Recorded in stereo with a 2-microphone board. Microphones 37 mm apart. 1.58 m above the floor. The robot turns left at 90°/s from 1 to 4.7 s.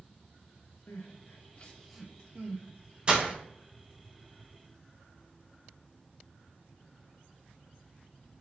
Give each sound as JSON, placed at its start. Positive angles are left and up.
{"t": 0.9, "sound": "crying", "side_deg": 75, "distance_m": 0.6}
{"t": 3.1, "sound": "breaking glass", "side_deg": -25, "distance_m": 0.8}